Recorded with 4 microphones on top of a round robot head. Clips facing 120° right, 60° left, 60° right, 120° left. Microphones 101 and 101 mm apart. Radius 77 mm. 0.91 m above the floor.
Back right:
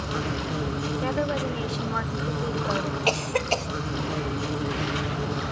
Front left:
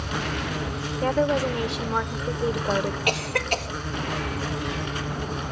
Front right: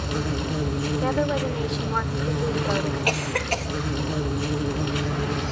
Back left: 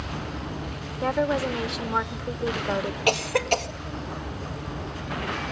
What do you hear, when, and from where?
0.0 s an insect: 50° right, 1.8 m
1.0 s a woman speaking: 45° left, 0.8 m
3.1 s a cough: 175° right, 1.7 m